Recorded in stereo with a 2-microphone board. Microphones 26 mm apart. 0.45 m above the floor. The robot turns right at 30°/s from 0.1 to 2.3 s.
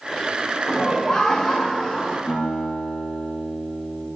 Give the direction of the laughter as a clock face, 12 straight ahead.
11 o'clock.